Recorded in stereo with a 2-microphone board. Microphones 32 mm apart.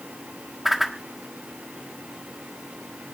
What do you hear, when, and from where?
0.7 s a whoosh: 5° right (ahead or behind), 1.3 m